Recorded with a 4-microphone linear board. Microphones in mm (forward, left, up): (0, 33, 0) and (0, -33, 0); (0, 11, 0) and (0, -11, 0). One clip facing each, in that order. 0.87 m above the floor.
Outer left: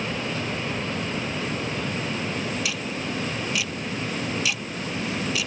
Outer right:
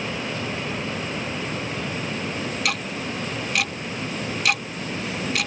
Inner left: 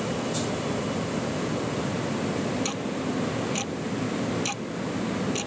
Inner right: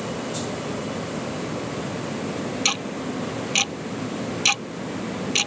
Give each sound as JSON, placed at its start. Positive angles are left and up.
{"t": 2.6, "sound": "ticking", "side_deg": -60}